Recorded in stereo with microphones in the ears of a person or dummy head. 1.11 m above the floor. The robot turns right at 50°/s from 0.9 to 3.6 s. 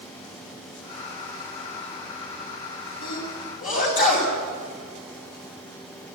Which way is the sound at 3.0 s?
75° left (ahead or behind).